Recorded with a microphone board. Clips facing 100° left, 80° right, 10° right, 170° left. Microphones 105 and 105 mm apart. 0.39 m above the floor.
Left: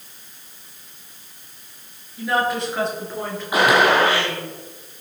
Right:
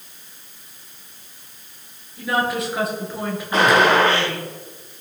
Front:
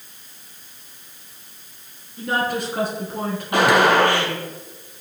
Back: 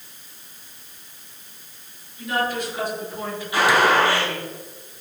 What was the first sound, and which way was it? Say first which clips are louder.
A woman speaking: left 1 dB, front 2 dB; 10° left.